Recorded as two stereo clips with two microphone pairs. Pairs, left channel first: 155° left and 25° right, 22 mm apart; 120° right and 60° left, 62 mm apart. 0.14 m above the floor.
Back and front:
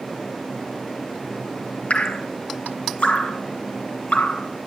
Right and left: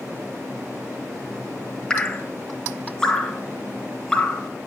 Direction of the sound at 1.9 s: 165° left.